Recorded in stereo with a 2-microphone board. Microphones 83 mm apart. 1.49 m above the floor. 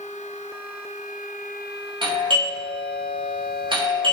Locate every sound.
2.0 s a doorbell: 65° right (ahead or behind), 3.5 m